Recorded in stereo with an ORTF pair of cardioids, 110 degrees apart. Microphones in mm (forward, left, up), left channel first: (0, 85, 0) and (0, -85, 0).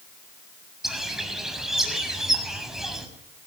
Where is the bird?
Straight ahead, 6 m.